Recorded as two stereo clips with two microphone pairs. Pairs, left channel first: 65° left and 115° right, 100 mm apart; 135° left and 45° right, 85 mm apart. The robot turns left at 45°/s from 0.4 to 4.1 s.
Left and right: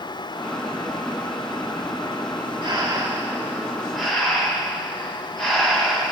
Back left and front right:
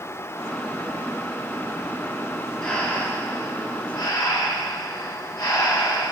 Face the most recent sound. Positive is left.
turn(degrees=150)